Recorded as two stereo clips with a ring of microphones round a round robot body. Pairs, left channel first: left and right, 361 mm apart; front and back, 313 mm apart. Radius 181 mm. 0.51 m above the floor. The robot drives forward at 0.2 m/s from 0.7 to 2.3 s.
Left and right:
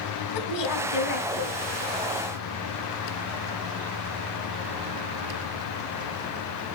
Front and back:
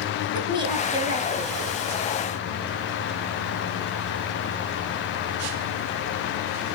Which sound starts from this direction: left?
A woman speaking, at 0.3 s.